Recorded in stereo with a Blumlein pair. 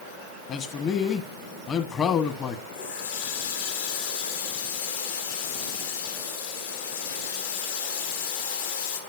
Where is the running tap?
60° left, 2 m.